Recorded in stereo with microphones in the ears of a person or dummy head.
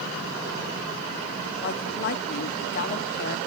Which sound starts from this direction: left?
A woman speaking, at 1.6 s.